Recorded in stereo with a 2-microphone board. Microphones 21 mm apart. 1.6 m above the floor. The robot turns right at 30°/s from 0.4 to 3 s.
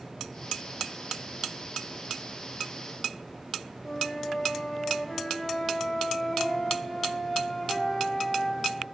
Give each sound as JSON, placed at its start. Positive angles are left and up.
{"t": 3.8, "sound": "a flute", "side_deg": 20, "distance_m": 0.7}